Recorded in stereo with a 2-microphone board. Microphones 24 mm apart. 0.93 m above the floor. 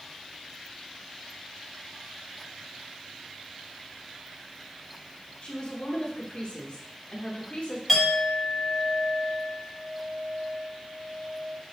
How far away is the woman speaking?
About 0.9 m.